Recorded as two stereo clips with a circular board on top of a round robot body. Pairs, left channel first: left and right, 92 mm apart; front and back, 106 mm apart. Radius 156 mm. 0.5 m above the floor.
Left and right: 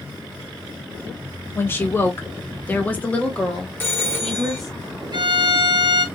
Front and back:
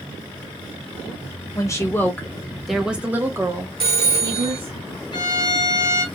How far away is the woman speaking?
About 1.4 m.